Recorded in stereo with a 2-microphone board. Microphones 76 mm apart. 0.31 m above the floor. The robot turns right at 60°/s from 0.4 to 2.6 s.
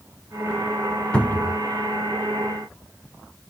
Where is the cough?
I don't hear a cough.